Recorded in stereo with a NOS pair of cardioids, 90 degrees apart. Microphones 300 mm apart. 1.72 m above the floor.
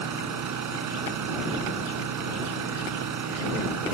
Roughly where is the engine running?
Right.